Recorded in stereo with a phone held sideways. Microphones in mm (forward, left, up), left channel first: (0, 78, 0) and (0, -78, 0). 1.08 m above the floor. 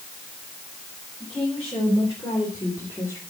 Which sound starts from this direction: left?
A woman speaking, at 1.2 s.